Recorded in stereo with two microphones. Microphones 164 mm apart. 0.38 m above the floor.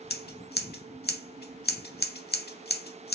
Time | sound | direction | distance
0.1 | scissors | 70° left (ahead or behind) | 0.6 m